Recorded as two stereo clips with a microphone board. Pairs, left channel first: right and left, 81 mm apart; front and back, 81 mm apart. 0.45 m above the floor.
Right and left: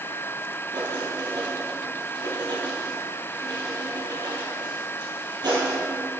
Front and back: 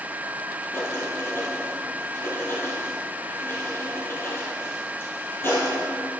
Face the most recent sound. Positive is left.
turn(degrees=60)